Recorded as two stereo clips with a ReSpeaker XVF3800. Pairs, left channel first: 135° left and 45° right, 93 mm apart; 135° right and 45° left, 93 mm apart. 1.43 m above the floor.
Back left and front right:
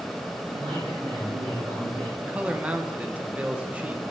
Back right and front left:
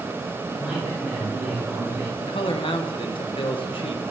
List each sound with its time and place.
0.5 s a man speaking: 40° right, 4 m
2.2 s a man speaking: 120° right, 0.9 m